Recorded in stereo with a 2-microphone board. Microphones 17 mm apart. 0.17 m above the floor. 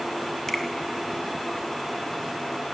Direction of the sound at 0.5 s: 25° left (ahead or behind).